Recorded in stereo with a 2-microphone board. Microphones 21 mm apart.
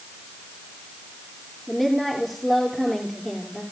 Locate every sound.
1.7 s a woman speaking: centre (ahead or behind), 3 m